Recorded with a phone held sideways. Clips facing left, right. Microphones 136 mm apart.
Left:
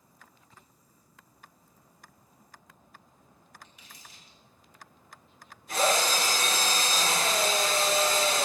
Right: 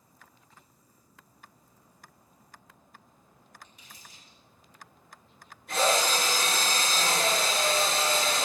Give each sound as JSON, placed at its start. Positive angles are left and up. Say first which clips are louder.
{"t": 3.6, "sound": "crumpling", "louder": "even", "side_deg": -50, "distance_m": 4.0}
{"t": 5.7, "sound": "a drill", "louder": "even", "side_deg": -70, "distance_m": 6.0}